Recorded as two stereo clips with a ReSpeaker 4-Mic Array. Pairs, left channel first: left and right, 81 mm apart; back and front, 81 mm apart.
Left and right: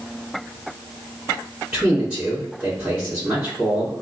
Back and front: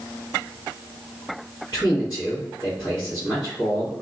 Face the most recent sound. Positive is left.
turn(degrees=-150)